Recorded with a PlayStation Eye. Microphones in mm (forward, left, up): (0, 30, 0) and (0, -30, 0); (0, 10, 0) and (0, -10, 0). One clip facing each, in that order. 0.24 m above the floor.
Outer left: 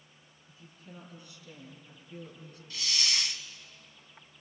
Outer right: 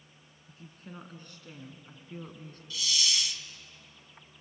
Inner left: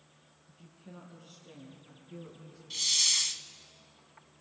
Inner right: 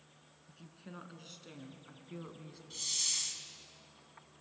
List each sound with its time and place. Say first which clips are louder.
0.5 s a woman speaking: outer right 4 dB, inner right 1 dB; 50° right (ahead or behind), 3.5 m
2.7 s a hiss: outer right 1 dB, inner left 9 dB; 40° left (ahead or behind), 0.9 m